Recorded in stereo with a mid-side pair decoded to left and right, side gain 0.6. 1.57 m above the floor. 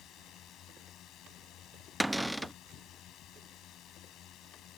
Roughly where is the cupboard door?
Ahead.